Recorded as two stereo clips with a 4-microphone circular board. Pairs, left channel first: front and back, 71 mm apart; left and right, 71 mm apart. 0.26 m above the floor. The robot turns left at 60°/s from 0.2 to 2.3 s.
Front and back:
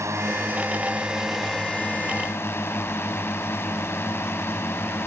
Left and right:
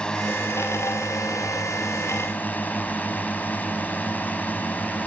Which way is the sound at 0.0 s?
160° left.